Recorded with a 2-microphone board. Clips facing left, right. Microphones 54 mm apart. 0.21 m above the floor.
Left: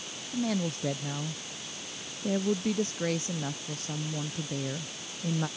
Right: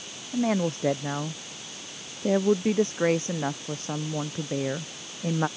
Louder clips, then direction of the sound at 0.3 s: Right 5 dB; 40° right (ahead or behind).